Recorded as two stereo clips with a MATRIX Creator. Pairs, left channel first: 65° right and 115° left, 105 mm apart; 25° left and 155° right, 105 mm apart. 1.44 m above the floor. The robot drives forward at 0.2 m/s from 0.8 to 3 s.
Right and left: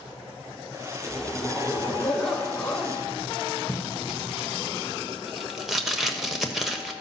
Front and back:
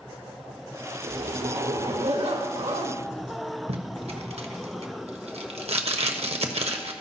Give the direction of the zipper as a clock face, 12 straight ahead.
5 o'clock.